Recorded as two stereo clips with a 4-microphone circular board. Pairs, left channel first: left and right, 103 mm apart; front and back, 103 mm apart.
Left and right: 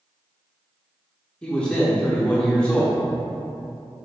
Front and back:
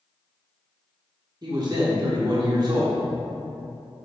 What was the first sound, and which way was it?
A man speaking, 165° left.